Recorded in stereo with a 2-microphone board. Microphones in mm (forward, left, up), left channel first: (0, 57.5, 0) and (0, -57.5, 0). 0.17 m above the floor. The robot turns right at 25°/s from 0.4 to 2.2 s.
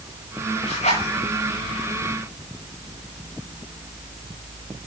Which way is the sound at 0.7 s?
85° left.